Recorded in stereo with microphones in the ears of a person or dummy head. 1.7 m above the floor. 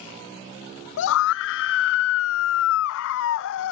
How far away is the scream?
About 0.7 m.